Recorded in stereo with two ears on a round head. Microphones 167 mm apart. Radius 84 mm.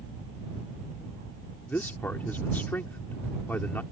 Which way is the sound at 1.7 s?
10° left (ahead or behind).